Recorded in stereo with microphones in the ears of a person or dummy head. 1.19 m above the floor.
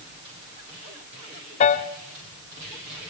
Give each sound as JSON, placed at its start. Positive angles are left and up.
{"t": 1.6, "sound": "a piano", "side_deg": 40, "distance_m": 1.2}